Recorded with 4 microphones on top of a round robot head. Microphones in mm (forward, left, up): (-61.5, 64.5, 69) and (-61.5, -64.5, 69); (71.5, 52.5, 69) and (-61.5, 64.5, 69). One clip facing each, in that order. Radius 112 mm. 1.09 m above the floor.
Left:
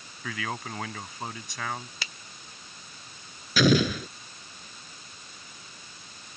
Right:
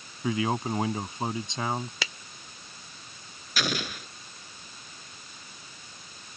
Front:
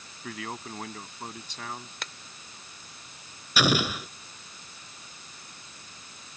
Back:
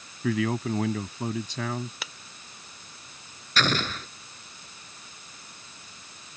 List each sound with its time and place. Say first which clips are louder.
0.2 s a man speaking: right 8 dB, back 12 dB; 160° right
2.0 s a finger snap: right 6 dB, even; 100° right
3.6 s an explosion: left 11 dB, front 2 dB; 75° left